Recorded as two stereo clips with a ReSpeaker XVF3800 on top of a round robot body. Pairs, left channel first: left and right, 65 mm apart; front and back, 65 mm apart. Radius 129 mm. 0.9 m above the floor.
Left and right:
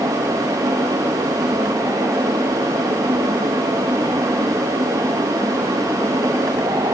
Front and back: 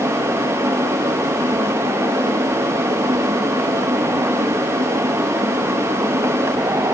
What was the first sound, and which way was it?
Only background noise.